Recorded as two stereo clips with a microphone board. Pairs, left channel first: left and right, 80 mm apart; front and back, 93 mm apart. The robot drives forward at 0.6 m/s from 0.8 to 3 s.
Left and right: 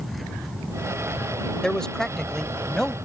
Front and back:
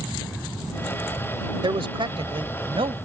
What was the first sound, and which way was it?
A man speaking, 170° left.